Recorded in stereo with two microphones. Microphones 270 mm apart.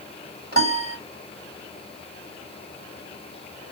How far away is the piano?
About 1.2 m.